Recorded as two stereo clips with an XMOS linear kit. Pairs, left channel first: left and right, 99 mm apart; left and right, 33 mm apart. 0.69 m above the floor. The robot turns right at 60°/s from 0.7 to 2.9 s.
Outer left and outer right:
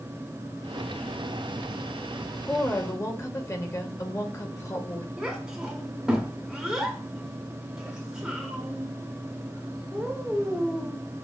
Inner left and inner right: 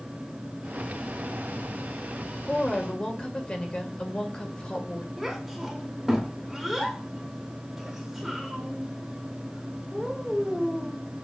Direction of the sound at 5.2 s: 10° right (ahead or behind).